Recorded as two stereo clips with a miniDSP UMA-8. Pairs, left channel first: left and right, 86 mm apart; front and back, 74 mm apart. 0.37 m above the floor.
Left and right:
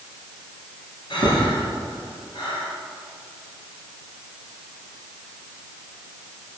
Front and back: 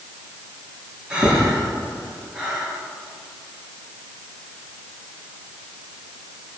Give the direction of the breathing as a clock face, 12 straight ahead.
9 o'clock.